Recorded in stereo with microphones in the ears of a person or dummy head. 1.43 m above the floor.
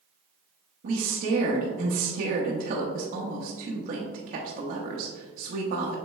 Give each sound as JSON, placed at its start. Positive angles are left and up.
{"t": 0.8, "sound": "a woman speaking", "side_deg": -50, "distance_m": 0.7}